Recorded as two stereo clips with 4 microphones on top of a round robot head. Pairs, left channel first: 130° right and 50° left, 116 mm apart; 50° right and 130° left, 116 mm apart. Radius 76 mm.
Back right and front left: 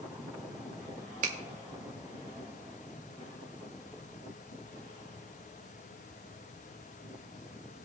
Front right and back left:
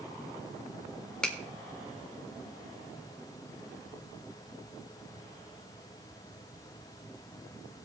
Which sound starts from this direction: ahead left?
A finger snap, at 1.2 s.